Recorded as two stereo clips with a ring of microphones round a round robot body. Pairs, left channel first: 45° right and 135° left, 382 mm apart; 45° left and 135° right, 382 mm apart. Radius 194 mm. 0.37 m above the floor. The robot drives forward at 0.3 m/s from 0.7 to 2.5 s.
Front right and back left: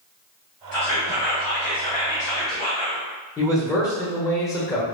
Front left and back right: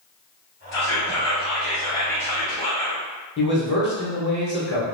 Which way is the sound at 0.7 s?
5° right.